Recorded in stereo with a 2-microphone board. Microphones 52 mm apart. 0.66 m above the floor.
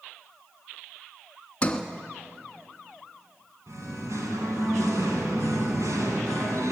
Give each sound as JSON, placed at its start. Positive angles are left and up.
{"t": 1.6, "sound": "a sliding door", "side_deg": 25, "distance_m": 1.4}
{"t": 3.7, "sound": "singing", "side_deg": -85, "distance_m": 3.5}